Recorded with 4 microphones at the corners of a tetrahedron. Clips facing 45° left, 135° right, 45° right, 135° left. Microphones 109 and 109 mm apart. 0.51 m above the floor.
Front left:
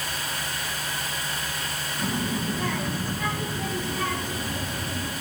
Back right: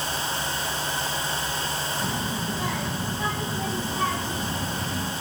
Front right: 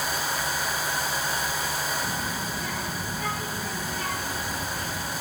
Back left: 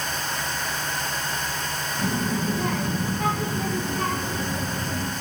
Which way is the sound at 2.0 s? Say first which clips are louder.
Front left 1 dB, back left 5 dB; 140° left.